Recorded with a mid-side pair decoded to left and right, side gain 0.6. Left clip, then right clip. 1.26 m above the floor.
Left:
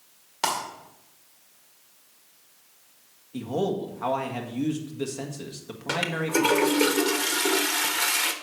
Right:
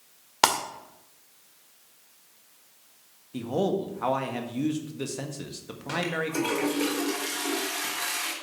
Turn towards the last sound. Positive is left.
turn(degrees=40)